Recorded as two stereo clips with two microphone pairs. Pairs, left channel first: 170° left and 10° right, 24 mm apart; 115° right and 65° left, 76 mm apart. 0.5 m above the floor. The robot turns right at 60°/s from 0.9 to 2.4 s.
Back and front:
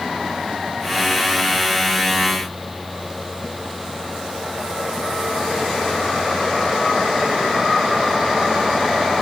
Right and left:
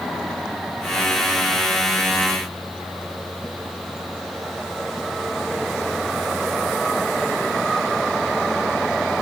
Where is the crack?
No crack in this recording.